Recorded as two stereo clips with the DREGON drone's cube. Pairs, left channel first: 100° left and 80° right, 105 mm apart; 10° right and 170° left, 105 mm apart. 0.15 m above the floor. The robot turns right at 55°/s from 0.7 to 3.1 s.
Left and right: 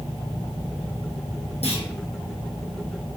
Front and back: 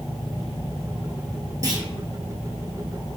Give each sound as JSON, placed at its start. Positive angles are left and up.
{"t": 1.6, "sound": "a clunk", "azimuth_deg": 110, "distance_m": 1.2}